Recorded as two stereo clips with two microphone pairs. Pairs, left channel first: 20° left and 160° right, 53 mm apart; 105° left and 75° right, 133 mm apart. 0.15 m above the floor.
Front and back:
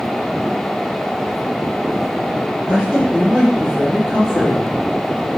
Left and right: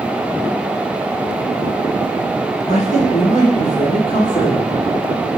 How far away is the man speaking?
About 3.5 m.